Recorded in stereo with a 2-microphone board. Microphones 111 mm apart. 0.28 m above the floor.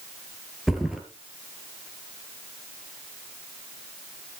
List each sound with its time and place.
0.7 s a thud: centre (ahead or behind), 3 m